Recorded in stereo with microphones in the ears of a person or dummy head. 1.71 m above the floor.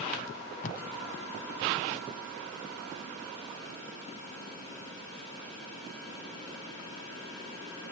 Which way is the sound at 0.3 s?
40° left (ahead or behind).